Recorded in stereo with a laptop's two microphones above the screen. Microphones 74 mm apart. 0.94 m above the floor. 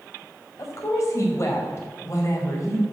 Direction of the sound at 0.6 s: 45° left (ahead or behind).